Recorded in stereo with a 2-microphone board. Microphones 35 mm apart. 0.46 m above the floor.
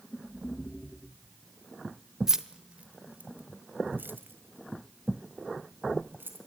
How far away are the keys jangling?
About 0.9 m.